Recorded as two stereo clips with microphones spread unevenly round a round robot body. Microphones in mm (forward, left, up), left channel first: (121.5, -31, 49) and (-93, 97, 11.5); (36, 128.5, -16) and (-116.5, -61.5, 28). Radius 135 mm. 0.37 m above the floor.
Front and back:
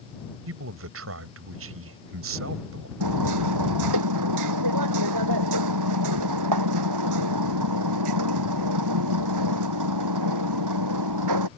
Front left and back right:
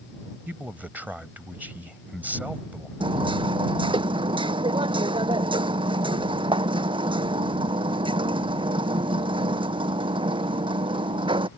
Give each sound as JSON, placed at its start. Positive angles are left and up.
{"t": 0.5, "sound": "a man speaking", "azimuth_deg": 145}
{"t": 3.0, "sound": "hammering", "azimuth_deg": 160}